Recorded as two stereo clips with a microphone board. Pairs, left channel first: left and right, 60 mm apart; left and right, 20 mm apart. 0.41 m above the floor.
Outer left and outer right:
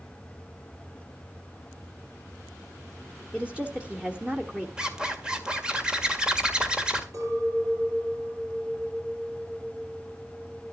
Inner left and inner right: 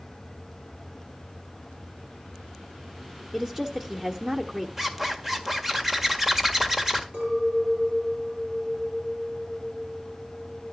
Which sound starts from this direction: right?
A clink, at 7.1 s.